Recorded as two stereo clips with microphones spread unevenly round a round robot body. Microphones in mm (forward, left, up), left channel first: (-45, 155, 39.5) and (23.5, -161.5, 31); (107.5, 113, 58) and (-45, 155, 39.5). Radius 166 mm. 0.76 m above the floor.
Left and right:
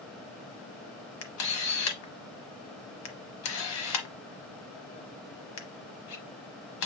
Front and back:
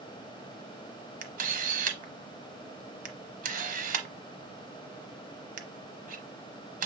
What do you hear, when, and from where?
1.2 s a camera shutter: 135° left, 1.0 m